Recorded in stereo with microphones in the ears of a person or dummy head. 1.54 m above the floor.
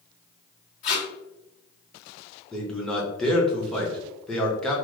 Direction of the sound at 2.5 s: 5° left (ahead or behind).